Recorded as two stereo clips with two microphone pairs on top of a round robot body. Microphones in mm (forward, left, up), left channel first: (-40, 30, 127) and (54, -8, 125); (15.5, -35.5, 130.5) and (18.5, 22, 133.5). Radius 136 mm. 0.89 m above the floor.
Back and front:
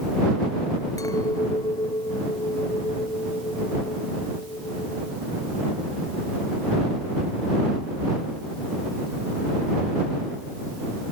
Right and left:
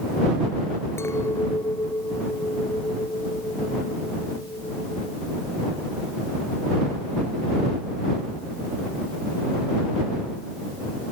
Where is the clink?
140° right.